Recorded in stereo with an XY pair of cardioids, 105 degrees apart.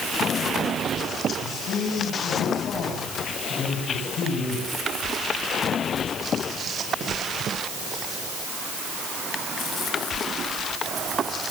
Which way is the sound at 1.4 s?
60° left.